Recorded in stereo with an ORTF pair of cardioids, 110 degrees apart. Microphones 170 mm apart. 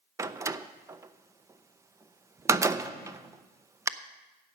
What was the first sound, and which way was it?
A door slam, 15° right.